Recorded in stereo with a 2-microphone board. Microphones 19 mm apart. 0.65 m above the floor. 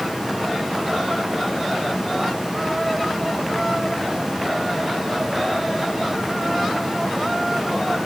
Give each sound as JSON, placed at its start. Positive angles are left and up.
{"t": 0.0, "sound": "running water", "side_deg": -35, "distance_m": 6.5}